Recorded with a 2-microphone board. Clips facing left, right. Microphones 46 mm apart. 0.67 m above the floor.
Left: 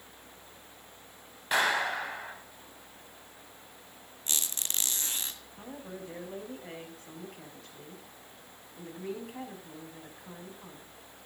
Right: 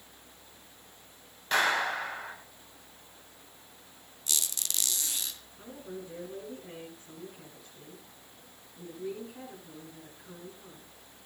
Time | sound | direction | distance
1.5 | a clap | 10° left (ahead or behind) | 4 m
4.3 | a squeak | 35° left (ahead or behind) | 1.9 m
5.6 | a woman speaking | 75° left (ahead or behind) | 5 m